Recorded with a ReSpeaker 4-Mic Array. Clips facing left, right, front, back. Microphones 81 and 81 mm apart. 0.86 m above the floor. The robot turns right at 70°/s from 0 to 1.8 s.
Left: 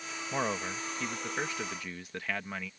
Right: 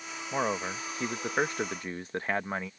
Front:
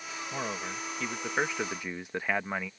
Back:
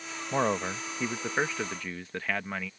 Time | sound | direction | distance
0.3 | a man speaking | 165° right | ?